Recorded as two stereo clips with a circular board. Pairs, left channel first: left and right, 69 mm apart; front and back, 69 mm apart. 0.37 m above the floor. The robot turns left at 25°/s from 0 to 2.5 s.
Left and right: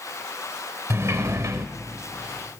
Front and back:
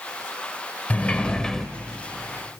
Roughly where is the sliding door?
Ahead right.